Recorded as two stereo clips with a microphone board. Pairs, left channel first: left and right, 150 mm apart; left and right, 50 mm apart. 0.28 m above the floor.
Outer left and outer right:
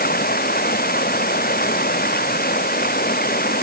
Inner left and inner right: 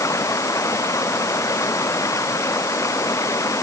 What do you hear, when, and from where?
0.0 s running water: 85° left